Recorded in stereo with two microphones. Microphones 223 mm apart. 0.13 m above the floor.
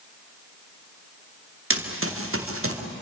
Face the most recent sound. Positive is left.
turn(degrees=-75)  # may be behind; listen again after turning